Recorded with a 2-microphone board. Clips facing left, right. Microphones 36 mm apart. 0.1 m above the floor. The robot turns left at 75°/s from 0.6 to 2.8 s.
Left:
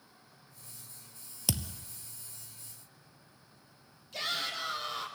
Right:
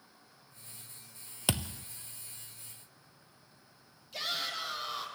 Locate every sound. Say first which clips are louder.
1.5 s a thud: right 3 dB; 35° right (ahead or behind), 0.6 m; by 1.9 s 55° right (ahead or behind), 0.6 m
4.1 s a shout: left 1 dB; centre (ahead or behind), 4 m